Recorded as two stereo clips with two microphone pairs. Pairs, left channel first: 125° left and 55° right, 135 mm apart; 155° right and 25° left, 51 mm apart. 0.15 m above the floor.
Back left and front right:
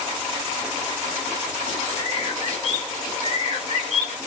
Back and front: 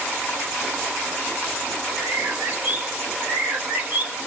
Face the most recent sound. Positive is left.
turn(degrees=85)